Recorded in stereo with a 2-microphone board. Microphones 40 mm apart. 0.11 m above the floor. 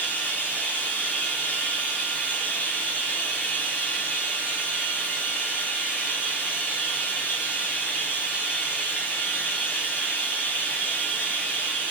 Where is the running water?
40° left (ahead or behind), 6.5 m.